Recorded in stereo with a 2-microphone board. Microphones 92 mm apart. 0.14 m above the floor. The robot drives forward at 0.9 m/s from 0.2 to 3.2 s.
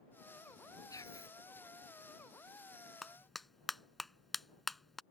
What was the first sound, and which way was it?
Whispering, 35° left (ahead or behind).